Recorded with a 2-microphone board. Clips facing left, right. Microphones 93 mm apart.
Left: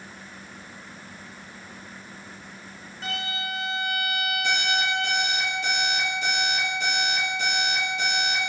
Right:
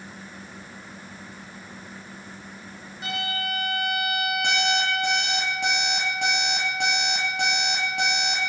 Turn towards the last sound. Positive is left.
turn(degrees=-85)